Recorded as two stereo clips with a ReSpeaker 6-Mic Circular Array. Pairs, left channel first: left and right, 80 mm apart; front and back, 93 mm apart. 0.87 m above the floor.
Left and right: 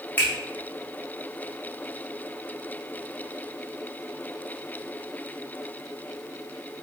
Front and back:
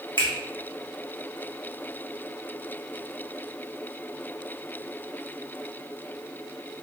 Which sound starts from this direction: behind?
A finger snap, at 0.2 s.